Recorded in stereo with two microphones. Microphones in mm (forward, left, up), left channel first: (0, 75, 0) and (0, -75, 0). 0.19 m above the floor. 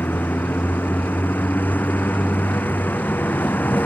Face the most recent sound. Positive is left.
turn(degrees=10)  # may be behind; listen again after turning